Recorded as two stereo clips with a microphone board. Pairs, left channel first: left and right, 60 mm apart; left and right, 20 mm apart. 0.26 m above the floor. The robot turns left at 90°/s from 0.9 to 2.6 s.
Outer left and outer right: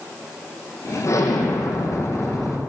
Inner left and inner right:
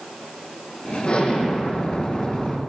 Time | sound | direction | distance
1.1 | an explosion | 135° left | 3.5 m